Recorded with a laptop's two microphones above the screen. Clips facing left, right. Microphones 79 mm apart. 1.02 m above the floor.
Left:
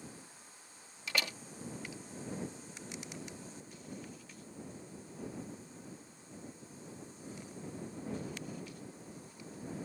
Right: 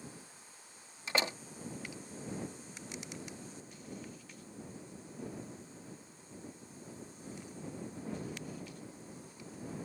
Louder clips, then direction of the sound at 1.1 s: Right 4 dB; 30° right (ahead or behind).